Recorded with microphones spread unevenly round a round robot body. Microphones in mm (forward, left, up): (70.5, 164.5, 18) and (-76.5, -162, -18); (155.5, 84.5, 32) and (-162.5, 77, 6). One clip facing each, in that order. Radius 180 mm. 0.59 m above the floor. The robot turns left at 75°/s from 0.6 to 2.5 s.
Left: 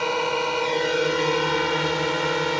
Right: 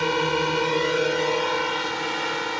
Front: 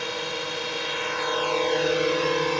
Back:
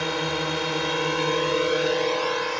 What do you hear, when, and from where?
0.0 s a drone: 175° right; by 2.6 s 45° left